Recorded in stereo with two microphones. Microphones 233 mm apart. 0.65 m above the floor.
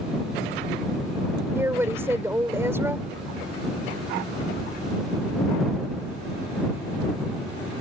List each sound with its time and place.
1.6 s a woman speaking: 10° right (ahead or behind)